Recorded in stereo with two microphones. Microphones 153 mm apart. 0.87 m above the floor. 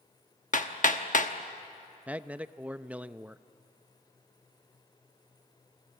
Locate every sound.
0.5 s hammering: 55° left (ahead or behind), 1.1 m
2.1 s a man speaking: 10° right (ahead or behind), 0.5 m